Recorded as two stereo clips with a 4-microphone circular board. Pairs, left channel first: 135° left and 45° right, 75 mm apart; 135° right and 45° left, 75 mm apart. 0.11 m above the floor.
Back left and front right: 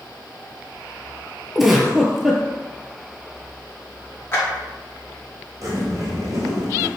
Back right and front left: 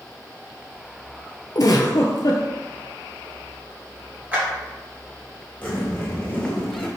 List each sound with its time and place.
1.6 s a giggle: 135° right, 0.7 m
4.3 s a clap: 100° left, 1.8 m
5.6 s a zipper: 70° right, 1.3 m